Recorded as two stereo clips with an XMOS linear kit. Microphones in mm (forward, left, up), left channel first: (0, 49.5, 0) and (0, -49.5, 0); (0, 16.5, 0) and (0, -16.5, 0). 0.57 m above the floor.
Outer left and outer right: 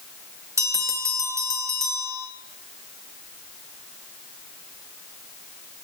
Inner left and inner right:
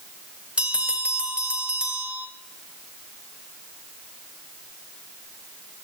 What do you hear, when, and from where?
0.6 s a bell: 30° right (ahead or behind), 2 m